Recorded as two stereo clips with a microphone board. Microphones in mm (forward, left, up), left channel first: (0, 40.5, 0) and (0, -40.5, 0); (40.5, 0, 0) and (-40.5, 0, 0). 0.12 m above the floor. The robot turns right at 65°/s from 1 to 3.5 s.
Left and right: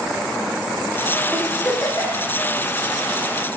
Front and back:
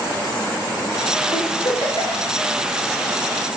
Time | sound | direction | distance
1.3 | a giggle | 10° right | 4 m